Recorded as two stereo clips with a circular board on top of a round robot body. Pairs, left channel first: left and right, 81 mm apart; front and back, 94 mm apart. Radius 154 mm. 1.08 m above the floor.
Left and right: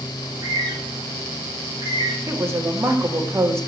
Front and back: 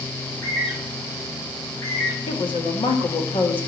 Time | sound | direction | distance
0.2 | a bird | 55° right | 4.5 m
2.3 | a woman speaking | 30° right | 1.8 m